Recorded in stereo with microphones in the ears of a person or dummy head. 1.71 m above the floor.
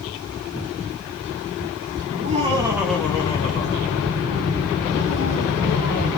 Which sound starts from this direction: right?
Laughter, at 2.1 s.